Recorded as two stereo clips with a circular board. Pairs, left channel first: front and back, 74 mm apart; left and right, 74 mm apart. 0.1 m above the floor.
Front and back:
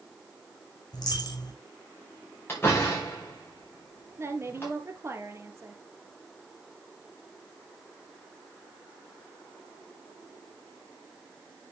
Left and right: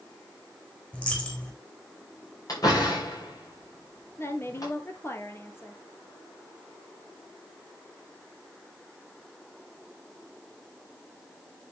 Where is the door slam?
60° left, 6 m.